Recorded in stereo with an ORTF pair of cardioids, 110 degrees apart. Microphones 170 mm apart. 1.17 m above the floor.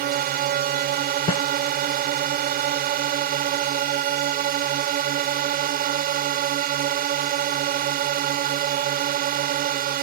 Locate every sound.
0.0 s a drone: 65° right
1.3 s a snare drum: 30° left